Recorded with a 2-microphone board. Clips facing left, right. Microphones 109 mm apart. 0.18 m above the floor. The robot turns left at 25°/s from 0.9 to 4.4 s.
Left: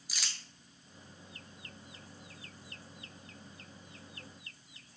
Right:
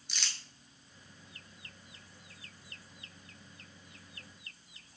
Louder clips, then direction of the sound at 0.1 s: Right 1 dB; 5° left (ahead or behind).